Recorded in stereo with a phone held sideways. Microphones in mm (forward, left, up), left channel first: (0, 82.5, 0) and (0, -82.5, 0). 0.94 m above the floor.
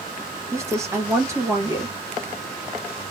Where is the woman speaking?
15° right (ahead or behind), 1.3 m.